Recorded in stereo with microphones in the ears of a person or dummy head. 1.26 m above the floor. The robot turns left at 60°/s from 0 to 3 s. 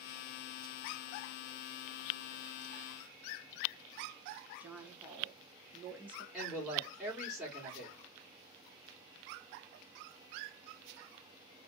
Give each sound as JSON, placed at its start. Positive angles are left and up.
{"t": 4.6, "sound": "a woman speaking", "side_deg": -10, "distance_m": 1.5}
{"t": 6.3, "sound": "a woman speaking", "side_deg": 0, "distance_m": 2.0}